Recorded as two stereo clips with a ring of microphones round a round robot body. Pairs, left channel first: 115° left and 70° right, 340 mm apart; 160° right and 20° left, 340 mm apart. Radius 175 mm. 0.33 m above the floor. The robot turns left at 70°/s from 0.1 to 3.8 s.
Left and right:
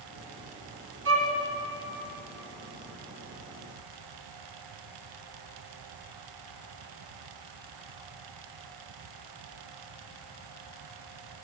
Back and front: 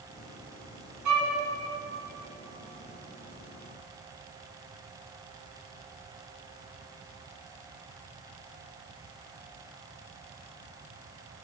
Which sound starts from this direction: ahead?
A violin, at 1.1 s.